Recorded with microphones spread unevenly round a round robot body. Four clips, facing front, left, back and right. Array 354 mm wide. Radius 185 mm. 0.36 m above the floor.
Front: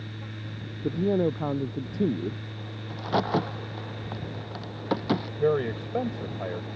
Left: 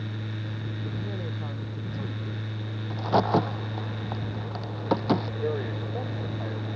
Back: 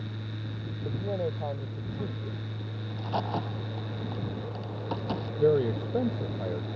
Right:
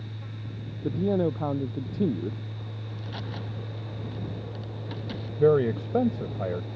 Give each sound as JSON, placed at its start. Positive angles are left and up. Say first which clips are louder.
{"t": 0.8, "sound": "a man speaking", "louder": "right 14 dB, front 8 dB", "azimuth_deg": -40}
{"t": 2.9, "sound": "a crack", "louder": "left 18 dB, front 6 dB", "azimuth_deg": 55}
{"t": 5.4, "sound": "a man speaking", "louder": "right 9 dB, back 3 dB", "azimuth_deg": -95}